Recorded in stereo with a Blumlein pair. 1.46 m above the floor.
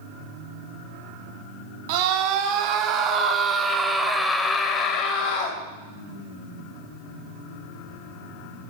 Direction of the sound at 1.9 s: 50° right.